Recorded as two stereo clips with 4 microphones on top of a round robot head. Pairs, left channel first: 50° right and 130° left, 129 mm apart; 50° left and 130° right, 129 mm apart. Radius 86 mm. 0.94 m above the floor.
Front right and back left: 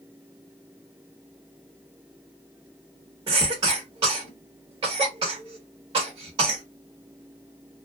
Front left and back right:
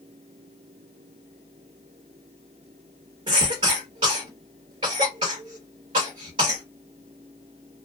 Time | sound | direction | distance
3.3 | a cough | 175° right | 1.0 m